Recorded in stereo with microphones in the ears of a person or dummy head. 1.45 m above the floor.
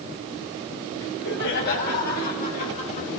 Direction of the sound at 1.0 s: 65° left (ahead or behind).